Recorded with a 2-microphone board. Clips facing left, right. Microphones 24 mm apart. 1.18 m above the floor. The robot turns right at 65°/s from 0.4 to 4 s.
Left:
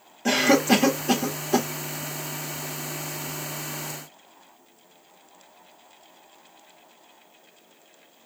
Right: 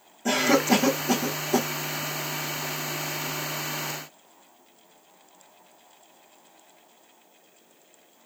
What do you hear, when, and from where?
0.2 s a cough: 50° left (ahead or behind), 1.3 m; by 1.7 s 45° left (ahead or behind), 1.3 m